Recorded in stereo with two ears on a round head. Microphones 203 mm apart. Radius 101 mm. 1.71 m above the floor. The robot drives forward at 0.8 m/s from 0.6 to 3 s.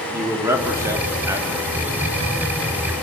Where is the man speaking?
10° right (ahead or behind), 3.5 m; by 1.9 s 15° right (ahead or behind), 2.5 m.